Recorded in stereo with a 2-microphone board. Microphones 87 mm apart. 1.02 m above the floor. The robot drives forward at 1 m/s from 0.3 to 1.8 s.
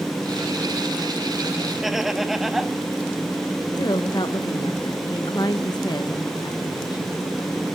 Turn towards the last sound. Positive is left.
turn(degrees=55)  # may be behind; listen again after turning